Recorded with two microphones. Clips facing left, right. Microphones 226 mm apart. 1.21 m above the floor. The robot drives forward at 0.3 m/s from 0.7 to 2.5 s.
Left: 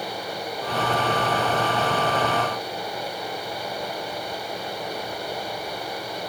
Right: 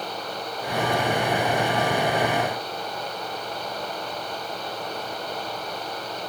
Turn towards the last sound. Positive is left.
No sound to turn to.